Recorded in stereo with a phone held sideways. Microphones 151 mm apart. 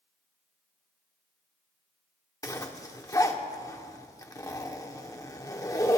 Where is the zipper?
20° left (ahead or behind), 1.1 m.